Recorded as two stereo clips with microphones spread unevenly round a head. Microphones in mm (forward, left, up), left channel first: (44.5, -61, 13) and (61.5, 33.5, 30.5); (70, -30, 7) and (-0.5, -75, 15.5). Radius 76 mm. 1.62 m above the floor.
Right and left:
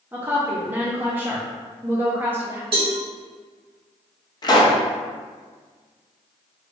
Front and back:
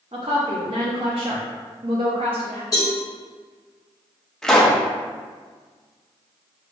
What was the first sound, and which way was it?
A woman speaking, 155° left.